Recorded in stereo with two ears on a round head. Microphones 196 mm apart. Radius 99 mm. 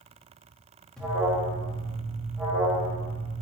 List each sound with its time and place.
1.0 s an alarm: 5° left (ahead or behind), 1.6 m